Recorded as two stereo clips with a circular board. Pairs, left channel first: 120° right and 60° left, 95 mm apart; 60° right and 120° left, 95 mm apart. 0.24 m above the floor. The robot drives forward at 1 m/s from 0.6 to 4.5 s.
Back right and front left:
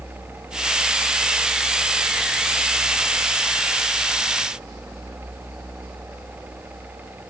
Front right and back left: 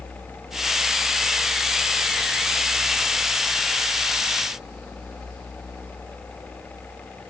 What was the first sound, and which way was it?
Only background noise.